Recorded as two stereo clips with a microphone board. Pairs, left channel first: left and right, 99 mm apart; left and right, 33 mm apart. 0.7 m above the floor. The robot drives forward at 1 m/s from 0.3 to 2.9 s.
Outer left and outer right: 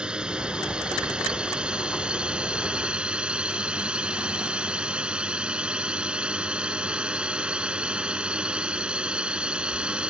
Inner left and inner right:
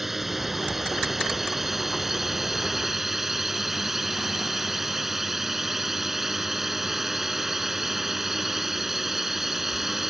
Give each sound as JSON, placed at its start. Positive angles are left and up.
{"t": 0.0, "sound": "a drone", "side_deg": -10}